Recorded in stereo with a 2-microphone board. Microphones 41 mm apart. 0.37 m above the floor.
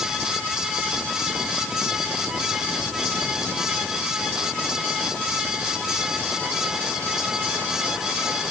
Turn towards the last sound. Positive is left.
No sound to turn to.